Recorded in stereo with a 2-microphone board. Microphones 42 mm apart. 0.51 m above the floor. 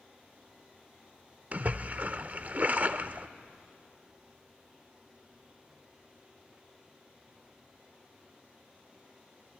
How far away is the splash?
About 0.6 m.